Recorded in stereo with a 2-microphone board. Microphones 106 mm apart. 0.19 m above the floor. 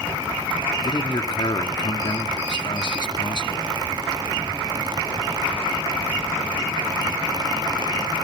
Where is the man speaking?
45° left (ahead or behind), 1.8 m.